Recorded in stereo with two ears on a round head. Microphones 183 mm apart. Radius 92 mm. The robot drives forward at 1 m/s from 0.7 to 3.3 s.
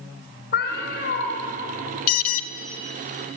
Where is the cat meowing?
55° left (ahead or behind), 3.5 m; by 1.3 s 50° left (ahead or behind), 4 m.